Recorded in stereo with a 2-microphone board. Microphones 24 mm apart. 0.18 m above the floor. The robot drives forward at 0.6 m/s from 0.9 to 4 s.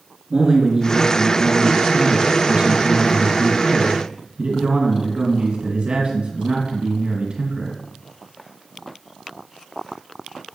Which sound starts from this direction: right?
A man speaking, at 0.3 s.